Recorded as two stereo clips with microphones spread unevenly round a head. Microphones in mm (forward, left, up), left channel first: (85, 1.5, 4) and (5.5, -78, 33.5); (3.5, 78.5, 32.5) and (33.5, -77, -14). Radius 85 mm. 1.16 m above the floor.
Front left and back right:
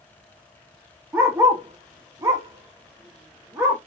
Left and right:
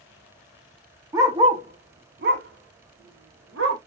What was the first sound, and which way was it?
A dog barking, 170° right.